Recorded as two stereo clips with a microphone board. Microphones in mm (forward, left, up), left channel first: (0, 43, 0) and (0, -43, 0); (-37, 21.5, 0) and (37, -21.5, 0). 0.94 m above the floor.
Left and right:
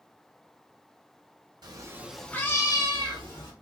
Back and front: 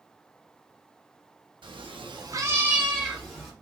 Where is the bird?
I don't hear a bird.